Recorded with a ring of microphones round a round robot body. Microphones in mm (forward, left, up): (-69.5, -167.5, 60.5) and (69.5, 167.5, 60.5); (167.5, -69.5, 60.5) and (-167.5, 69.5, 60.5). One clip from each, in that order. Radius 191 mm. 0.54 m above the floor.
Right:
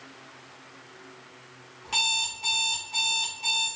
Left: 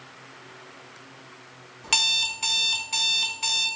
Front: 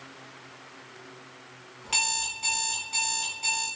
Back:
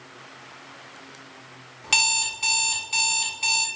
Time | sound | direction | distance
1.8 | an alarm clock | 100° left | 1.0 m